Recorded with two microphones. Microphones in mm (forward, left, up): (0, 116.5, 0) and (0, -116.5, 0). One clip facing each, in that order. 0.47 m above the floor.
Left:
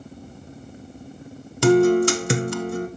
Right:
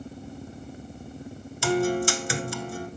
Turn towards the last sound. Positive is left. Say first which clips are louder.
# left 9 dB
turn(degrees=70)  # may be behind; listen again after turning